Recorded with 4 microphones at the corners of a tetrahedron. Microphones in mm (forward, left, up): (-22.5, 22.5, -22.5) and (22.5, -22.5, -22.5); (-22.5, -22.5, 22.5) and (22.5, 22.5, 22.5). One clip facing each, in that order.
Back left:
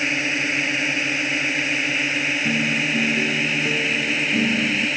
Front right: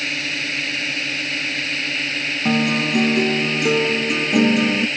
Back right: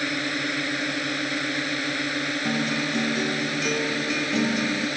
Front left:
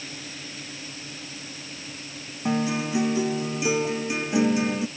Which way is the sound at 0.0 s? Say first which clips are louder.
Back left 3 dB, back right 13 dB; 155° right.